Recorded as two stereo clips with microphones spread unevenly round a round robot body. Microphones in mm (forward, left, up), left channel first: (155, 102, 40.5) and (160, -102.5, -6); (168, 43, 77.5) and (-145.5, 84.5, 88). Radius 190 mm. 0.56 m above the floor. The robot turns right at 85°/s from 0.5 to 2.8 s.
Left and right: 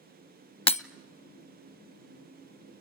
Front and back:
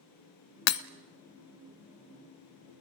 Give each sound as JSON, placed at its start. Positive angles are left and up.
{"t": 0.7, "sound": "breaking glass", "azimuth_deg": 30, "distance_m": 0.8}